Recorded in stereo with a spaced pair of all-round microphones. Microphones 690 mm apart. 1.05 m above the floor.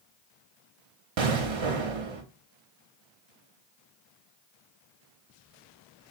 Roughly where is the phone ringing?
I don't hear a phone ringing.